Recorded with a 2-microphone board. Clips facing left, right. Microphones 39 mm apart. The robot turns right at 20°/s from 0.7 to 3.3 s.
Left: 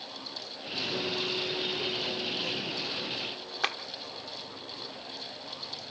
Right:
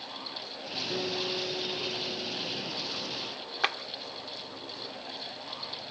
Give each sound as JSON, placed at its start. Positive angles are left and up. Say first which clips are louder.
{"t": 0.9, "sound": "a guitar", "louder": "even", "azimuth_deg": -60, "distance_m": 9.0}
{"t": 3.6, "sound": "a clap", "louder": "right 2 dB", "side_deg": -10, "distance_m": 0.9}